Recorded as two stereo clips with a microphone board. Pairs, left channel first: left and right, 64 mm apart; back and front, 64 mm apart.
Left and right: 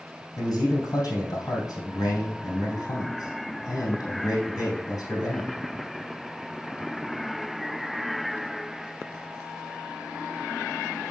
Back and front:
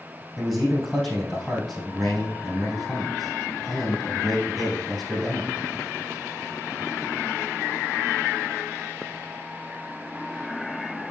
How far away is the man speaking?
About 3.5 m.